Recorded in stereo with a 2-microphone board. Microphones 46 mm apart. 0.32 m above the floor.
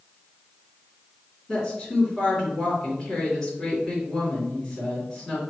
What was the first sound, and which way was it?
A woman speaking, 5° left (ahead or behind).